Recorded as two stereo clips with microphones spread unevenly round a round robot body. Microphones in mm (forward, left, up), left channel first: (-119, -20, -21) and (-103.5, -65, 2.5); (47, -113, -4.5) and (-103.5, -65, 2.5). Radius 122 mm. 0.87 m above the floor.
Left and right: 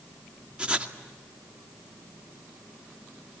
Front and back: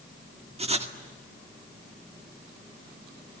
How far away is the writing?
About 2 m.